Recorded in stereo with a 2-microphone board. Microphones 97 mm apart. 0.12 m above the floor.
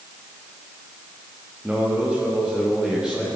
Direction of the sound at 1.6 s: 10° right (ahead or behind).